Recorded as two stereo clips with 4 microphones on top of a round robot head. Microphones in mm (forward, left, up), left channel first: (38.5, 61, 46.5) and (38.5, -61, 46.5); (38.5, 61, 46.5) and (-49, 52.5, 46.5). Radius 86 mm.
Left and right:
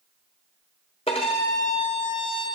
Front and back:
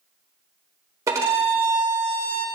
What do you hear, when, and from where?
1.1 s a violin: 140° left, 0.9 m